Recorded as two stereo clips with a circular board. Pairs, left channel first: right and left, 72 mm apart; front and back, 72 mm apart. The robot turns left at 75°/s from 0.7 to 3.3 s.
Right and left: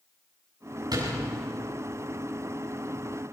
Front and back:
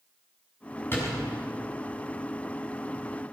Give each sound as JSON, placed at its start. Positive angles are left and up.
{"t": 0.9, "sound": "a door slam", "azimuth_deg": 60, "distance_m": 7.0}